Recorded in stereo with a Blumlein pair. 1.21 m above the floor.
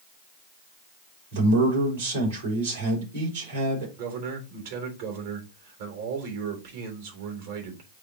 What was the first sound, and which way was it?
A man speaking, 65° right.